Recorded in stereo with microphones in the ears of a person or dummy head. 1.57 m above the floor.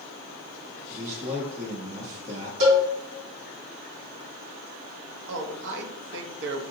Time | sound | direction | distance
0.9 | a man speaking | 45° right (ahead or behind) | 1.5 m
2.6 | a cowbell | 65° right (ahead or behind) | 2 m
5.3 | a man speaking | 65° right (ahead or behind) | 0.7 m